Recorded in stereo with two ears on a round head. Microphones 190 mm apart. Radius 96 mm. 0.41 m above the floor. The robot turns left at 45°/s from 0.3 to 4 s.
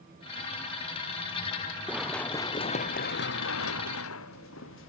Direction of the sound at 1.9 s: 10° right (ahead or behind).